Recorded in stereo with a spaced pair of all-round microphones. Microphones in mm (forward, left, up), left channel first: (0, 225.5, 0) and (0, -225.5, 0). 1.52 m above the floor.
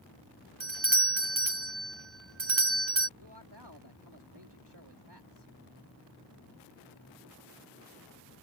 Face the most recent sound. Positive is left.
turn(degrees=-60)  # may be behind; listen again after turning